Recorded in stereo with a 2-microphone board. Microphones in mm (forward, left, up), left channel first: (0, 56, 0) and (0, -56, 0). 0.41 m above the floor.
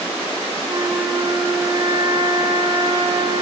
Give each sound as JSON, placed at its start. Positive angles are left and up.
{"t": 0.7, "sound": "a flute", "side_deg": -40, "distance_m": 0.9}